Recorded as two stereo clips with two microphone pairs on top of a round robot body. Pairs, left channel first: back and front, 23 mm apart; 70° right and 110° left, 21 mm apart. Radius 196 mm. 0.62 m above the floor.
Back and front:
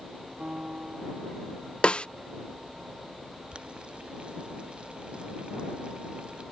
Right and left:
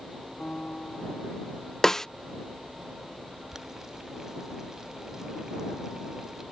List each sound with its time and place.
0.4 s a piano: 40° right
1.8 s a snare drum: 145° right
3.5 s boiling: 40° left